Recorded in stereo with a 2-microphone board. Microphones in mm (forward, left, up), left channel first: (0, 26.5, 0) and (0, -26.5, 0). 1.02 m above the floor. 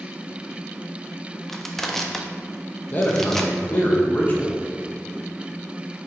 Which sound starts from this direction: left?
A man speaking, at 2.9 s.